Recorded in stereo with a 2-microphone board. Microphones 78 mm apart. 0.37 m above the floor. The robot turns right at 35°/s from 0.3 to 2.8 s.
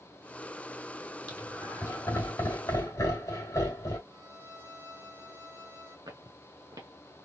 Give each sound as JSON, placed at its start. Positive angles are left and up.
{"t": 1.3, "sound": "laughter", "side_deg": 15, "distance_m": 2.5}
{"t": 4.1, "sound": "a violin", "side_deg": 45, "distance_m": 1.7}
{"t": 6.1, "sound": "footsteps", "side_deg": -60, "distance_m": 1.4}